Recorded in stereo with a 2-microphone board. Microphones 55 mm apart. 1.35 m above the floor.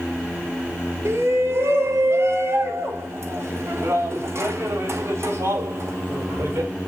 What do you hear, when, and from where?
1.1 s a shout: 60° right (ahead or behind), 1.9 m; by 6.7 s 55° right (ahead or behind), 5 m